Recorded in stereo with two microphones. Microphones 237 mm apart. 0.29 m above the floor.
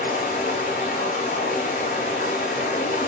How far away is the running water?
About 1.0 m.